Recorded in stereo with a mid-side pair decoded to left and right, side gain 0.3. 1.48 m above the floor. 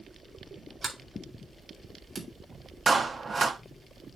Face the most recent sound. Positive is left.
turn(degrees=-50)